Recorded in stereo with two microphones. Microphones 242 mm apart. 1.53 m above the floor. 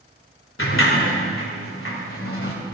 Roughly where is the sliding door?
Left.